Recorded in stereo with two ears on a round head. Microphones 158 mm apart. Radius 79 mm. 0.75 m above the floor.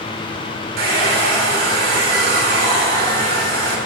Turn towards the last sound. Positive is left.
turn(degrees=-60)  # may be behind; listen again after turning